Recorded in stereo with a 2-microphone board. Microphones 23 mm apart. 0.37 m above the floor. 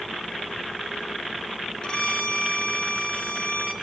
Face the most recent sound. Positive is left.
turn(degrees=40)  # may be behind; listen again after turning